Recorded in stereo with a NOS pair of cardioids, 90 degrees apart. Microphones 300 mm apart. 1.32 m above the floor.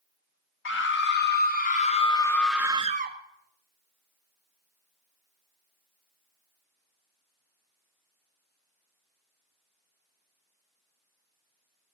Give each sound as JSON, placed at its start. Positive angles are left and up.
{"t": 0.7, "sound": "a scream", "azimuth_deg": 40, "distance_m": 1.8}